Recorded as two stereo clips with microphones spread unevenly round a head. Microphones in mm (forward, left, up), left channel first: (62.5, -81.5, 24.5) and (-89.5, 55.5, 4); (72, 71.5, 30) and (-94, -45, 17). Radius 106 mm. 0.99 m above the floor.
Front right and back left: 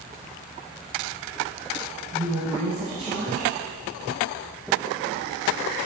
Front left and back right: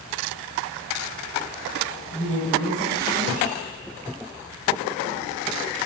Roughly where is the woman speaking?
Left.